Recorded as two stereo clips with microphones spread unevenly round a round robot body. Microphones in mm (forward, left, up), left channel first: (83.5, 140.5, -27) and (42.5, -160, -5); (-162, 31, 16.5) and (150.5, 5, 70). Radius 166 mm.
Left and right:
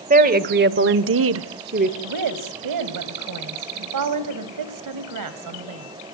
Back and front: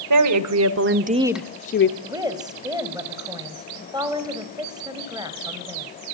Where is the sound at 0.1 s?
35° right, 1.9 m; by 1.9 s 165° right, 1.1 m.